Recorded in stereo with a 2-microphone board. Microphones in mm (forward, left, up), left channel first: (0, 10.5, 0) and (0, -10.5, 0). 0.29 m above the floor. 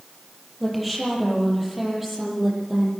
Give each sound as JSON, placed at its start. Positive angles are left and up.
{"t": 0.6, "sound": "a woman speaking", "side_deg": 5, "distance_m": 8.5}